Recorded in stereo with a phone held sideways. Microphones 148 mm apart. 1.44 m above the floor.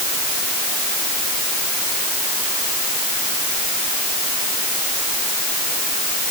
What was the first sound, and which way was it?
Only background noise.